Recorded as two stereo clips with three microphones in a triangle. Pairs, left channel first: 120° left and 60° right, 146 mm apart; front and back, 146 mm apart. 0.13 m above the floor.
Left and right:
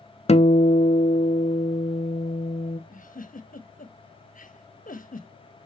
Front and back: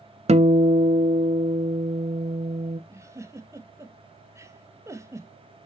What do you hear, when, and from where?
0.3 s a guitar: 150° left, 0.6 m
2.9 s a giggle: 115° left, 1.0 m